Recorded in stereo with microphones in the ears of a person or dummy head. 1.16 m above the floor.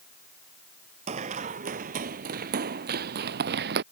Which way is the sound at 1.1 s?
40° right (ahead or behind).